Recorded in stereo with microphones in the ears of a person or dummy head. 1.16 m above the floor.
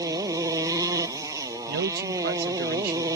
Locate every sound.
0.0 s a motorcycle: 20° right (ahead or behind)
1.7 s a man speaking: 50° right (ahead or behind)